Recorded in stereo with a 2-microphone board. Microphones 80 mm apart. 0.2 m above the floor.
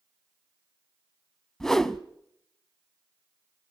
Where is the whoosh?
5° left (ahead or behind), 0.7 m.